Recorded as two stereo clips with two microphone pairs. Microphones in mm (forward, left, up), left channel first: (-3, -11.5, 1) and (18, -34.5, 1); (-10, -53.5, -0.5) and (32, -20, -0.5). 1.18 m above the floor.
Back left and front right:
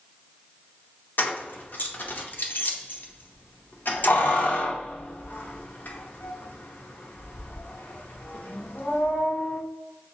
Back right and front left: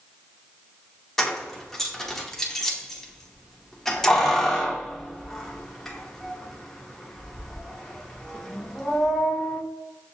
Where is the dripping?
No dripping in this recording.